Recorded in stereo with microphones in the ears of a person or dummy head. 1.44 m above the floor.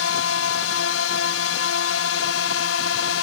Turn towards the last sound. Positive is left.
turn(degrees=65)  # may be behind; listen again after turning